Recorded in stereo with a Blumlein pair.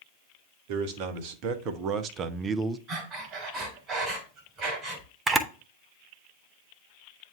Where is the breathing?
30° right, 2.5 m.